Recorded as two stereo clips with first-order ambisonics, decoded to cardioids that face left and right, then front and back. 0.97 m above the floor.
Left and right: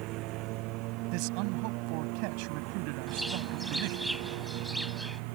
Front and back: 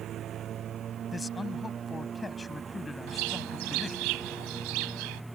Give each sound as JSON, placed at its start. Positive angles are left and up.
{"t": 0.0, "sound": "a lawn mower", "azimuth_deg": -125}
{"t": 1.1, "sound": "a man speaking", "azimuth_deg": -80}
{"t": 3.1, "sound": "a bird", "azimuth_deg": 180}